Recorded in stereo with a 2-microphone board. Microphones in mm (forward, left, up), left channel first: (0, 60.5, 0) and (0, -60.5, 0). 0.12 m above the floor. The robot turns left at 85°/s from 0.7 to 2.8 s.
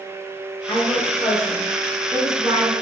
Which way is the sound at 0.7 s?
55° left.